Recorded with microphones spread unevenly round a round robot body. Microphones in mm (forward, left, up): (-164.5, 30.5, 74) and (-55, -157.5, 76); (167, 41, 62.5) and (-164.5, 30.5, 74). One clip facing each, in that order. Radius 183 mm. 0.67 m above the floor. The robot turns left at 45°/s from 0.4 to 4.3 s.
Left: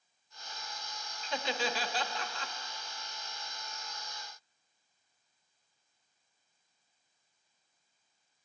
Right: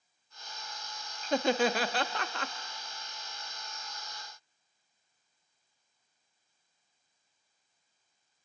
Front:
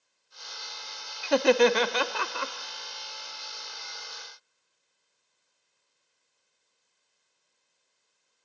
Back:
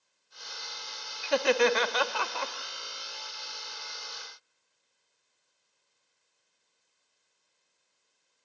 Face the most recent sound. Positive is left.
turn(degrees=-155)